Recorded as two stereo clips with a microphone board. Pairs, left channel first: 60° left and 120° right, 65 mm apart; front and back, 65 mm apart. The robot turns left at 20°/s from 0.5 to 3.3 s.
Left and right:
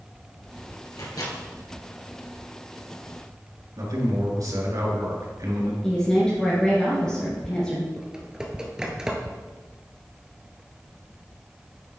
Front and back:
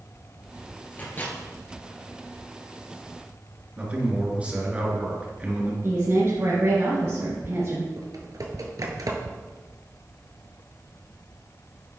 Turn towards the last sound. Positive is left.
turn(degrees=160)